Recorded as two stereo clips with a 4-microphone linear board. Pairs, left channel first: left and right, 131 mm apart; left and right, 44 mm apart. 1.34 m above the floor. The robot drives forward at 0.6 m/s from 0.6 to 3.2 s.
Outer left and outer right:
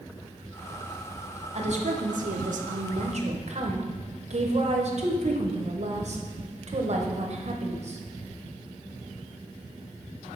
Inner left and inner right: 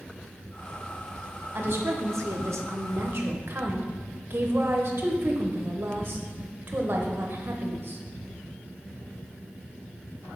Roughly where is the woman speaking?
Right.